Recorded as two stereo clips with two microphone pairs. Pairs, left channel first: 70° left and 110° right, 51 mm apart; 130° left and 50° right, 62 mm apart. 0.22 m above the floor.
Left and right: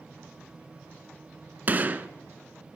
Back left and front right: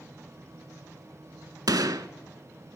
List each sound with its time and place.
1.7 s a gunshot: 50° right, 0.5 m